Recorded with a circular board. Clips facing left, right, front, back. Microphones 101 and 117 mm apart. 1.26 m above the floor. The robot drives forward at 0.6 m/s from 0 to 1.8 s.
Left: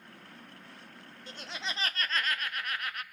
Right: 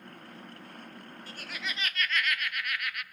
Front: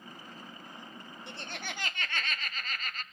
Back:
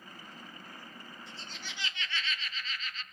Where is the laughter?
20° left, 0.8 m; by 3.0 s 35° left, 0.5 m.